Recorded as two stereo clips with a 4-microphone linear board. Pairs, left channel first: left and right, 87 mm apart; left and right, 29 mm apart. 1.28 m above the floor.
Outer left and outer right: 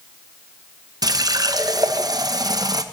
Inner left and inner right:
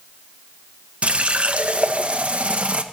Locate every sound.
1.0 s a running tap: 50° right (ahead or behind), 0.7 m